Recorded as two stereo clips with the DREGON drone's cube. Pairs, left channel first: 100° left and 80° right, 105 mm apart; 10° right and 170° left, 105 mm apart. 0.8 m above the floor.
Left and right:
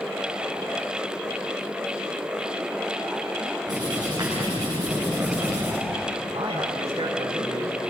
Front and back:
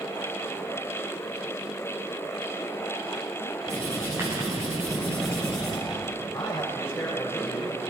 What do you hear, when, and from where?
3.7 s writing: 125° right, 8.5 m
6.3 s a man speaking: 75° right, 4.5 m